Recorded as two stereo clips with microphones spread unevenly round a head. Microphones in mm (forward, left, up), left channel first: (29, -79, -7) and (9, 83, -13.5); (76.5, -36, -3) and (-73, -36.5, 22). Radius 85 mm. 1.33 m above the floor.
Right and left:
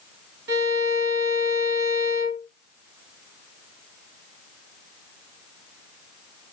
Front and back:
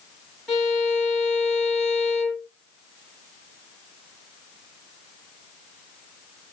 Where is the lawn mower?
I don't hear a lawn mower.